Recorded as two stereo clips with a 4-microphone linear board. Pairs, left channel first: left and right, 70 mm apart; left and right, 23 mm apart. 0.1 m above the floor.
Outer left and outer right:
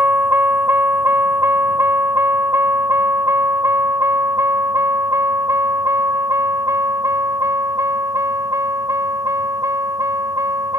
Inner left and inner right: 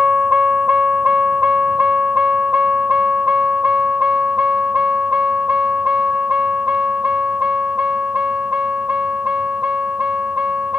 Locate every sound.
0.0 s a vehicle: 30° right (ahead or behind); by 10.8 s 50° right (ahead or behind)